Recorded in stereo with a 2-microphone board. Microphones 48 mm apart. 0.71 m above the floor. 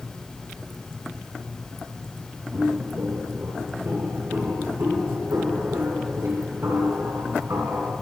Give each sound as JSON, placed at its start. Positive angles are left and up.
{"t": 2.5, "sound": "footsteps", "side_deg": -45, "distance_m": 6.5}